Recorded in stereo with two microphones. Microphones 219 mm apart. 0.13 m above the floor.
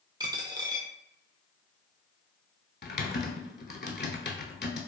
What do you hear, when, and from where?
0.2 s a dropped coin: 20° right (ahead or behind), 0.5 m
2.8 s typing on a keyboard: 50° left (ahead or behind), 0.5 m